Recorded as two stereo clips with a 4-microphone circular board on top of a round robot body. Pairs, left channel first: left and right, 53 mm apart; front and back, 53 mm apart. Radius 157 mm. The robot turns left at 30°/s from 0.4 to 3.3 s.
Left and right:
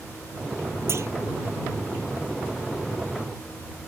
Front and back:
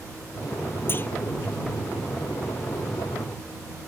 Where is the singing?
No singing in this recording.